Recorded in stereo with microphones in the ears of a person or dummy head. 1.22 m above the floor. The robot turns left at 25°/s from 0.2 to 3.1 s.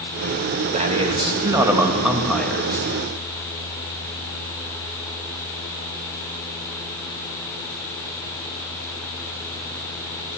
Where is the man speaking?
140° right, 1.3 m; by 2.9 s 165° left, 1.3 m.